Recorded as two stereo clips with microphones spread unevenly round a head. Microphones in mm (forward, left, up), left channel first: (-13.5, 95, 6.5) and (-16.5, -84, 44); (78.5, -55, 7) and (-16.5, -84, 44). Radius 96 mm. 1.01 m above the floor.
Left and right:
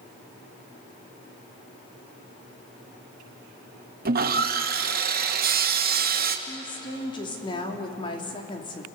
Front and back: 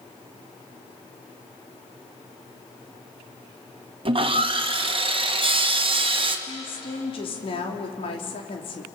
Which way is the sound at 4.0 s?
130° right.